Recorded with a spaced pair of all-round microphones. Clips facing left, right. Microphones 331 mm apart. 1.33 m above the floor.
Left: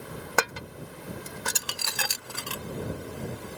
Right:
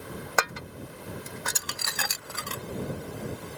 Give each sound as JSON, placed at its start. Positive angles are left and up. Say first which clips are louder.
{"t": 0.4, "sound": "dishes clattering", "louder": "left 3 dB", "side_deg": 40}